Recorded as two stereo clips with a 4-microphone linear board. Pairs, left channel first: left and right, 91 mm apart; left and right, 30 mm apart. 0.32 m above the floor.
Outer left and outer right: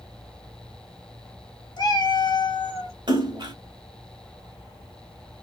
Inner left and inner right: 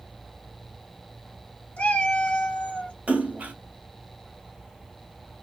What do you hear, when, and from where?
1.8 s a cat meowing: 55° left (ahead or behind), 1.0 m
3.1 s a splash: 55° right (ahead or behind), 1.2 m